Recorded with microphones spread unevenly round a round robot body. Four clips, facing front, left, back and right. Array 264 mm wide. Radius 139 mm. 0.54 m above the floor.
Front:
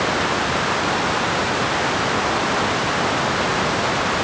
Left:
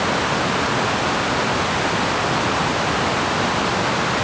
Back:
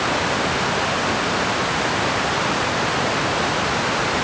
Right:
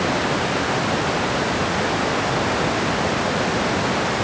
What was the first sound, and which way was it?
Only background noise.